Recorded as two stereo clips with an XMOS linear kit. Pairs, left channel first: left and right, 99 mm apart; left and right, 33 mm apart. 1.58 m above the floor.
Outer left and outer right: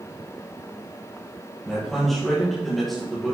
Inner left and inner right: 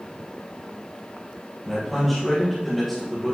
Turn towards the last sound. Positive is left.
turn(degrees=0)  # may be behind; listen again after turning